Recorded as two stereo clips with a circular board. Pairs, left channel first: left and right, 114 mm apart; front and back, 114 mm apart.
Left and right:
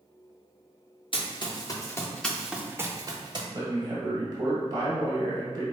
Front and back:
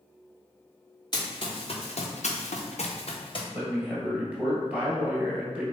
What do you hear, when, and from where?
1.1 s running footsteps: 50° left, 1.1 m; by 3.4 s 45° right, 1.0 m
3.5 s a man speaking: 115° right, 1.2 m